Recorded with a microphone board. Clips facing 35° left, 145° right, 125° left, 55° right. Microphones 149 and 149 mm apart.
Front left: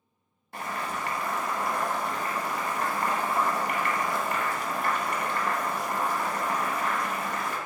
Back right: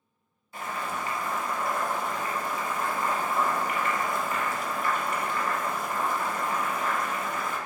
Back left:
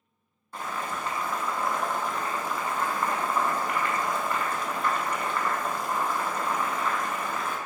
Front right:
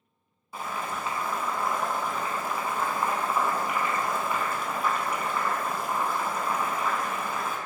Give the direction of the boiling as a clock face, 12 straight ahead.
11 o'clock.